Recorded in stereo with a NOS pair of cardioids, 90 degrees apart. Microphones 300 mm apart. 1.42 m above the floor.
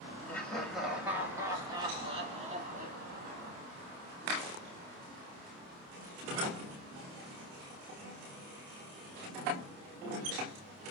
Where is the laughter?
5° left, 3 m; by 3.5 s 35° right, 3 m.